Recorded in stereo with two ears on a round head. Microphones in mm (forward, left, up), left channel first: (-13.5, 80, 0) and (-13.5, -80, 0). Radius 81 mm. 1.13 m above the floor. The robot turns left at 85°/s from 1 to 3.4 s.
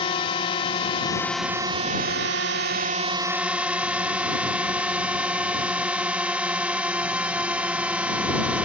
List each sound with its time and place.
0.0 s a drone: 30° left; by 8.7 s 170° right